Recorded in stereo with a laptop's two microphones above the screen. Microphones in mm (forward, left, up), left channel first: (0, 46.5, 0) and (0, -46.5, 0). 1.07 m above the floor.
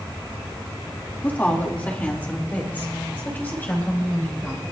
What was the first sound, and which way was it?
A woman speaking, 20° left (ahead or behind).